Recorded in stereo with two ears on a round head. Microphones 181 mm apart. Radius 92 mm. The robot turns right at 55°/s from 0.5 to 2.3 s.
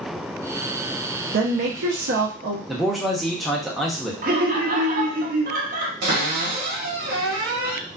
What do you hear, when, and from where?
1.3 s a woman speaking: 115° right, 0.6 m; by 2.6 s 60° right, 0.6 m
2.7 s a man speaking: centre (ahead or behind), 0.6 m
4.2 s laughter: 45° right (ahead or behind), 0.7 m
6.0 s a cupboard door: 50° right (ahead or behind), 1.4 m